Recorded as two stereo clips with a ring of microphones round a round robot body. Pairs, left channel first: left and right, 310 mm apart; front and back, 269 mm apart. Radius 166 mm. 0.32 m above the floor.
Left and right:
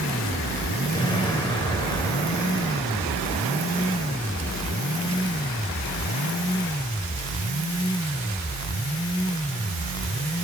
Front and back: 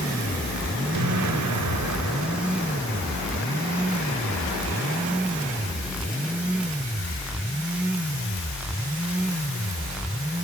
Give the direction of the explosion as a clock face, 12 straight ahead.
6 o'clock.